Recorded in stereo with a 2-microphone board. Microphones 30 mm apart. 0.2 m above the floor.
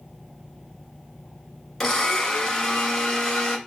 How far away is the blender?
About 1.2 m.